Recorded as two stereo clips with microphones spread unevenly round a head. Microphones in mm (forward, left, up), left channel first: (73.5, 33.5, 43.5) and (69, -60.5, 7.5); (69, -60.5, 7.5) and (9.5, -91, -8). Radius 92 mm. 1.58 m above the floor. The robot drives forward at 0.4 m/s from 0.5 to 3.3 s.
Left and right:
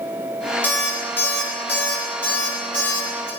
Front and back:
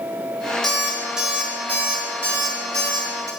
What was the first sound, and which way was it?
An alarm clock, 90° left.